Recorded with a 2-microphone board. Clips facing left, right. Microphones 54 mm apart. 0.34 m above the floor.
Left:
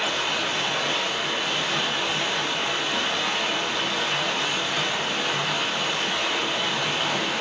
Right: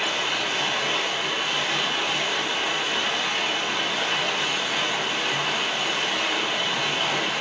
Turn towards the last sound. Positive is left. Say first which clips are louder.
# even
turn(degrees=-15)  # may be behind; listen again after turning